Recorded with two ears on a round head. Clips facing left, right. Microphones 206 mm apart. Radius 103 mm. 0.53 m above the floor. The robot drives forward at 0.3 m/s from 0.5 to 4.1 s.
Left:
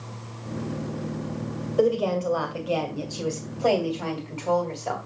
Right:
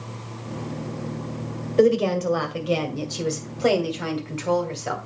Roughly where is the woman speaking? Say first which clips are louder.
Right 4 dB; right.